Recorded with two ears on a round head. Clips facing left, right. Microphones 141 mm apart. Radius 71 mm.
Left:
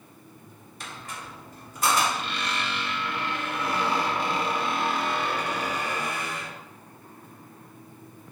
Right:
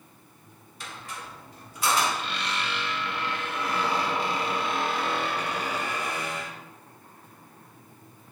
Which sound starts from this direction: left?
A squeak, at 0.8 s.